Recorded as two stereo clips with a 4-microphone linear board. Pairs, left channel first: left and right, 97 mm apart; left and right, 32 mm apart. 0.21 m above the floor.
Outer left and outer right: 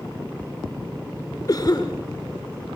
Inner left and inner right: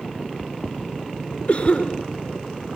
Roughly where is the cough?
Left.